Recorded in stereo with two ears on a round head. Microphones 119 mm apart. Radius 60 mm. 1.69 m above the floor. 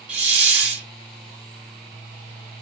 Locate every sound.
0.1 s a hiss: 10° right (ahead or behind), 0.9 m